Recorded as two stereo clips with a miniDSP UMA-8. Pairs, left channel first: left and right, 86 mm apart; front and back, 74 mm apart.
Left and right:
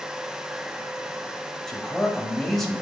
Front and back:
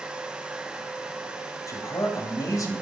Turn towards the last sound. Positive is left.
turn(degrees=5)